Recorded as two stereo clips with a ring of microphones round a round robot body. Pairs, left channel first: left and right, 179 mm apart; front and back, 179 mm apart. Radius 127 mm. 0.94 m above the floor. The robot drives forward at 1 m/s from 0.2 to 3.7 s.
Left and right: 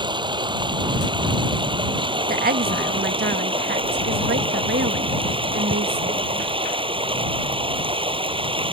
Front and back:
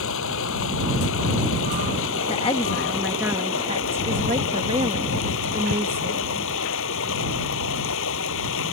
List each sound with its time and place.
0.0 s running water: 25° right; by 8.7 s 30° right
2.3 s a woman speaking: 60° right; by 6.5 s 120° right